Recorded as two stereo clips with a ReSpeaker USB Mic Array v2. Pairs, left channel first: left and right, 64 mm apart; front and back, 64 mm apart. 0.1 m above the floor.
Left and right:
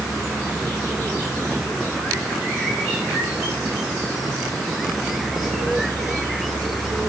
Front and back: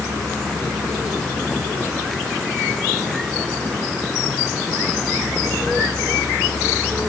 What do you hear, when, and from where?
Only background noise.